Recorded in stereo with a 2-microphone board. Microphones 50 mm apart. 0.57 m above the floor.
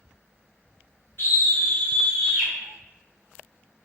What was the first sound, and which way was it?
A scream, 50° left (ahead or behind).